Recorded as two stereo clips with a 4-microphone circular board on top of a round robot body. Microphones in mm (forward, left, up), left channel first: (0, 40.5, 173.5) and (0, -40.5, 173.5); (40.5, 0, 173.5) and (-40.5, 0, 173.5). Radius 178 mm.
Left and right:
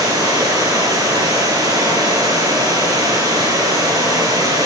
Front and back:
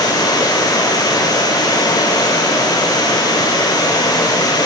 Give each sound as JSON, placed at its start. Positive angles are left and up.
{"t": 0.0, "sound": "running water", "azimuth_deg": -45, "distance_m": 7.5}